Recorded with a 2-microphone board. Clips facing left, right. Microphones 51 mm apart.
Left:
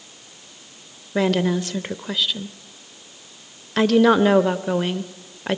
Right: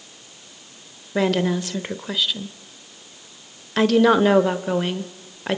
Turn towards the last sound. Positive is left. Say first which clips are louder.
# even
turn(degrees=0)  # may be behind; listen again after turning